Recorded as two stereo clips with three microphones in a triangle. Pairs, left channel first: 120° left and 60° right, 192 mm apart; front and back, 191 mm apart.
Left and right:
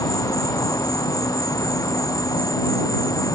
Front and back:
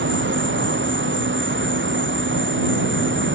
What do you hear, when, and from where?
0.0 s an insect: 170° right